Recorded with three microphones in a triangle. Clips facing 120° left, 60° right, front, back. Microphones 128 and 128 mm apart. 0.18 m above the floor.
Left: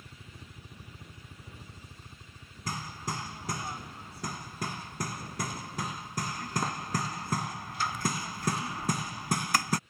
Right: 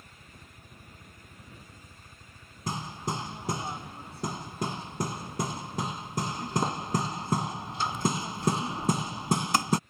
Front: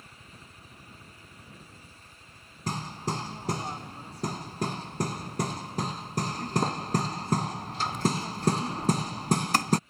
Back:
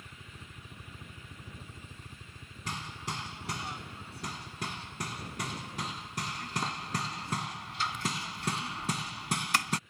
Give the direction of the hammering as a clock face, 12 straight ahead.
12 o'clock.